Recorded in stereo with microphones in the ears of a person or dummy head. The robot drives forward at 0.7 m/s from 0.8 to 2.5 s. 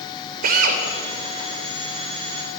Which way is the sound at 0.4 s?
55° right (ahead or behind).